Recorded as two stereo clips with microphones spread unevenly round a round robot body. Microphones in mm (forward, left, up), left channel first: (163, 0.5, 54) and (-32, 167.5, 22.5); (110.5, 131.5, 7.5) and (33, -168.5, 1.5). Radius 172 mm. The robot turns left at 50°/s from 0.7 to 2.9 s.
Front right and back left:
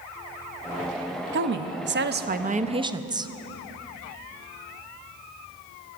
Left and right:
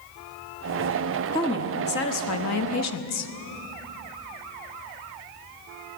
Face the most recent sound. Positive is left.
turn(degrees=75)